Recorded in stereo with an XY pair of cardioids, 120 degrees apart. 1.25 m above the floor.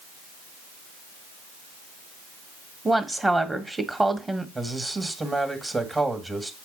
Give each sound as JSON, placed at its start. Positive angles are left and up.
{"t": 2.9, "sound": "a woman speaking", "azimuth_deg": -15, "distance_m": 1.7}
{"t": 4.5, "sound": "a man speaking", "azimuth_deg": -20, "distance_m": 1.9}